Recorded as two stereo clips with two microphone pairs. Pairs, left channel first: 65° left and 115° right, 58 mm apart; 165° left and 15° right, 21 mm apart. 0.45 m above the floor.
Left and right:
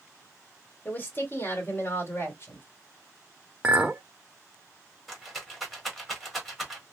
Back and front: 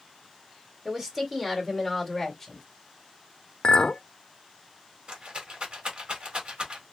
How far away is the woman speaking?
About 1.5 m.